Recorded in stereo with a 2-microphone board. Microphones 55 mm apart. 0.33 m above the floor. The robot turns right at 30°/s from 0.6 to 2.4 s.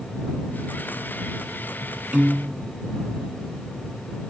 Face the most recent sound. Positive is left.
turn(degrees=-30)  # may be behind; listen again after turning